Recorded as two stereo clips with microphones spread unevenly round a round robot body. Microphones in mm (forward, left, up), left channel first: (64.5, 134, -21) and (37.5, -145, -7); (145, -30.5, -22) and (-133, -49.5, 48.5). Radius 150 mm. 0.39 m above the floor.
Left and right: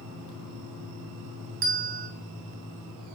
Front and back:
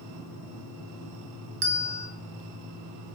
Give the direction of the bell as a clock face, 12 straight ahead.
5 o'clock.